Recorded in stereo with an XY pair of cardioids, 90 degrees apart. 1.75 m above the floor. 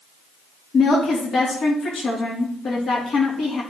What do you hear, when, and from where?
0.7 s a woman speaking: 60° left, 3 m